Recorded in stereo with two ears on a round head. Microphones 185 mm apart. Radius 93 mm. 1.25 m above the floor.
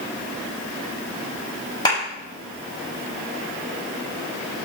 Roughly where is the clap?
Left.